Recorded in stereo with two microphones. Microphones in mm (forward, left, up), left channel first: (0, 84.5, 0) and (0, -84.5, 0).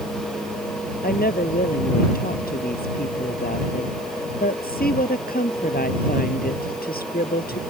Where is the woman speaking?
65° left (ahead or behind).